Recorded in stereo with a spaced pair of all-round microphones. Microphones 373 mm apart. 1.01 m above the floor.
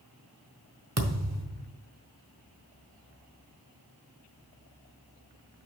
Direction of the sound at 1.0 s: 45° right (ahead or behind).